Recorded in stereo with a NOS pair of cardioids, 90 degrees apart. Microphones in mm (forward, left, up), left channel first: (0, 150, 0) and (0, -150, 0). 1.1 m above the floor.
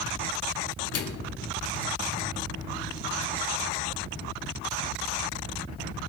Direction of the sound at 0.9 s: 55° left.